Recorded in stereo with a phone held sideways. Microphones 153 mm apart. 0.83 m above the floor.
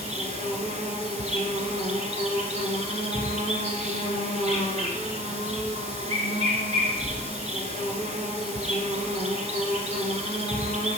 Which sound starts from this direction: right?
An insect, at 0.0 s.